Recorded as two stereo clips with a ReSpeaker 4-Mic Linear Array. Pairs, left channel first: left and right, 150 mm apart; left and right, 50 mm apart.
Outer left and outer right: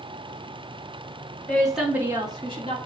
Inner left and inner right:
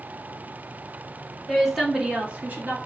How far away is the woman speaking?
About 1.2 m.